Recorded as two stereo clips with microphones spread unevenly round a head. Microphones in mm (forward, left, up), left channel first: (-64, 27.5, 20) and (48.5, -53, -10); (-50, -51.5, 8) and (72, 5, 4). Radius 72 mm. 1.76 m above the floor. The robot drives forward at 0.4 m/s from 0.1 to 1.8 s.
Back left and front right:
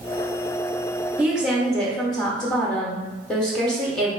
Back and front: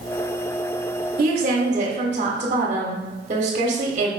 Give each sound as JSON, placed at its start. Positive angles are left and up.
{"t": 1.2, "sound": "a woman speaking", "azimuth_deg": 50, "distance_m": 1.1}